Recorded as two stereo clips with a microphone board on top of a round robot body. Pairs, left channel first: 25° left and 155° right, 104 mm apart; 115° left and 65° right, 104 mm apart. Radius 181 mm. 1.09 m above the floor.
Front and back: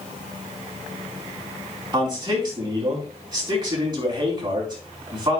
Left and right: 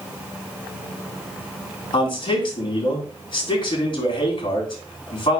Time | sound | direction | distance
1.9 | a man speaking | 155° left | 4.5 m